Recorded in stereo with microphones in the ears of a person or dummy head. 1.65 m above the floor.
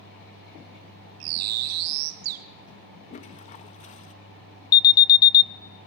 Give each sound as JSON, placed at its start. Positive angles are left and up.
{"t": 1.2, "sound": "a bird", "side_deg": -75, "distance_m": 0.8}
{"t": 3.1, "sound": "a toilet flushing", "side_deg": 30, "distance_m": 1.3}
{"t": 4.7, "sound": "an alarm", "side_deg": 20, "distance_m": 0.7}